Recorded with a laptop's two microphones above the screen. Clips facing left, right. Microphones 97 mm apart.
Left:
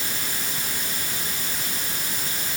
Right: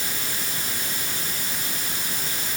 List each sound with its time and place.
Only background noise.